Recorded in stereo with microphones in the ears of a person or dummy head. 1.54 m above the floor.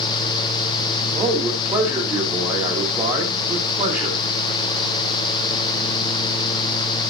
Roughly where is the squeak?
No squeak in this recording.